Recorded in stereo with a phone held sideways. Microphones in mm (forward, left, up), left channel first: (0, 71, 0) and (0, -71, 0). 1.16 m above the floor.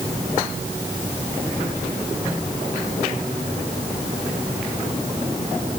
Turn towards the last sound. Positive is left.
No sound to turn to.